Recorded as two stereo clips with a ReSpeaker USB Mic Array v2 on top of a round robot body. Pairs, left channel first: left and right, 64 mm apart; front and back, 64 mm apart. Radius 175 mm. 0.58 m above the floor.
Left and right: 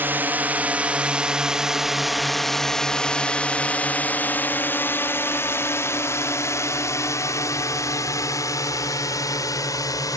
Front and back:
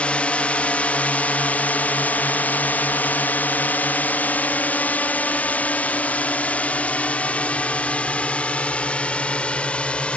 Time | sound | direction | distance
0.0 | a drone | 60° right | ?